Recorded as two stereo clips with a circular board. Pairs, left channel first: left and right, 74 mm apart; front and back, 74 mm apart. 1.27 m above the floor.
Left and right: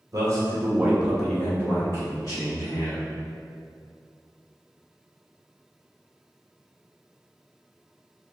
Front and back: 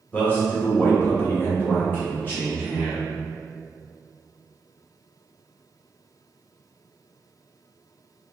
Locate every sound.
0.1 s a man speaking: 65° right, 0.9 m; by 3.1 s 70° left, 1.3 m